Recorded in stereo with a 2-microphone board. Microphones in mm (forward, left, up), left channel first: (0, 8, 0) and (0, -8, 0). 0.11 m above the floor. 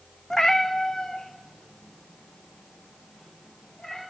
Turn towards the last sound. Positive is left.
turn(degrees=40)  # may be behind; listen again after turning